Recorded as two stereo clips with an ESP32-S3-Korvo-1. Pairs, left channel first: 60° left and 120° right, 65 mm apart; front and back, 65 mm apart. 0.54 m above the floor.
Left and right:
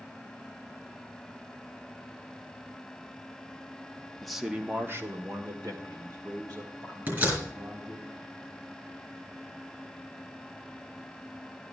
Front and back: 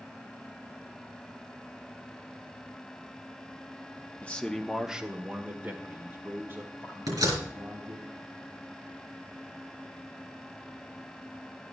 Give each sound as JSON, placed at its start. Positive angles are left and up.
{"t": 4.2, "sound": "a man speaking", "azimuth_deg": -15, "distance_m": 0.8}
{"t": 7.1, "sound": "a door slam", "azimuth_deg": 180, "distance_m": 4.5}